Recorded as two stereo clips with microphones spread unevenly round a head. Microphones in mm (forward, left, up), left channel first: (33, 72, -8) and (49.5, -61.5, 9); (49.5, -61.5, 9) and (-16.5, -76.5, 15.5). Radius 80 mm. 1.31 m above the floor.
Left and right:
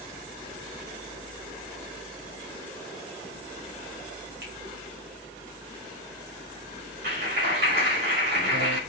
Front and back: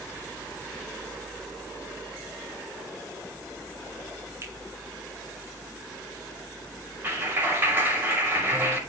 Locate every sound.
4.4 s a finger snap: 120° right, 3 m
7.0 s a clap: 105° right, 5.5 m